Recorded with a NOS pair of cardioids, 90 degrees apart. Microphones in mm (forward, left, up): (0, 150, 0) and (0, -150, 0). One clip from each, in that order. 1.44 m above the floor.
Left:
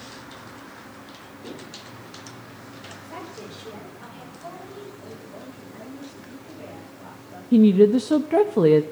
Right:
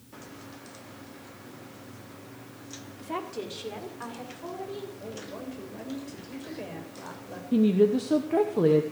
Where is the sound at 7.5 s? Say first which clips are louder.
Left 6 dB; 30° left, 0.9 m.